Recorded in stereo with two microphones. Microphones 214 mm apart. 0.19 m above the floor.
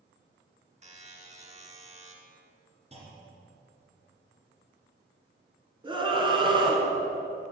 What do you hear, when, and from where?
0.8 s a buzzer: 35° right (ahead or behind), 1.3 m
2.9 s a clunk: 30° right (ahead or behind), 2 m
5.8 s a scream: 20° right (ahead or behind), 1.9 m